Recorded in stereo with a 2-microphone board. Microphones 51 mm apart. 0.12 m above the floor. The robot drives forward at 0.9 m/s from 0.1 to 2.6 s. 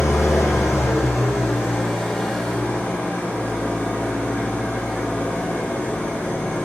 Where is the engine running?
75° left (ahead or behind), 1.9 m; by 6.7 s 40° left (ahead or behind), 3 m.